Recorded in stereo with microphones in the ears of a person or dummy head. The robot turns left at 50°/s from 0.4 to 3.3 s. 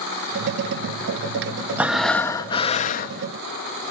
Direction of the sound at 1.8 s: 165° right.